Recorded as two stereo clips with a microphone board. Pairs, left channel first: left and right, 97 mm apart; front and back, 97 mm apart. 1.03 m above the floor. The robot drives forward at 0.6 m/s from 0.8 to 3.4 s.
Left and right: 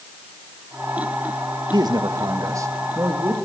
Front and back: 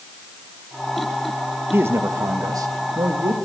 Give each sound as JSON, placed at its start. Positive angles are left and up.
{"t": 1.7, "sound": "a man speaking", "azimuth_deg": -120, "distance_m": 1.2}